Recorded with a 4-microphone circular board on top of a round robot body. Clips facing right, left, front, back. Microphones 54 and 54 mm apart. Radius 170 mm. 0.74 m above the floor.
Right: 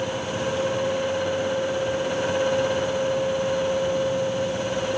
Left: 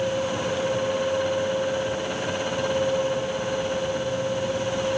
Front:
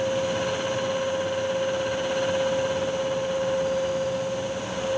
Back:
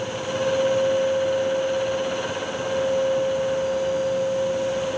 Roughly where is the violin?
I don't hear a violin.